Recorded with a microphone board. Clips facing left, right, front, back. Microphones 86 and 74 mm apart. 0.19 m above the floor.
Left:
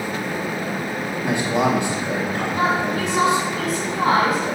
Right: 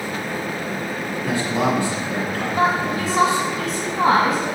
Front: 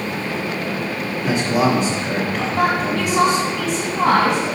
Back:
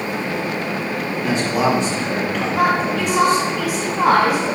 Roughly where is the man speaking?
Left.